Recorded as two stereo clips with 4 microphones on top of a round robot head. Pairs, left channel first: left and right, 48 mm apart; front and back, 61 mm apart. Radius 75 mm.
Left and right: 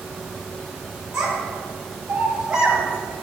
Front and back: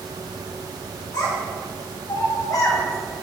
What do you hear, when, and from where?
1.1 s a child speaking: 10° right, 3 m; by 3.2 s 30° right, 1.5 m